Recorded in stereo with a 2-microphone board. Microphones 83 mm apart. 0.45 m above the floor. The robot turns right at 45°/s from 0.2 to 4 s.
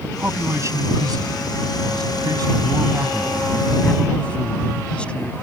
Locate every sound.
0.2 s a man speaking: 155° right; by 5.3 s 15° left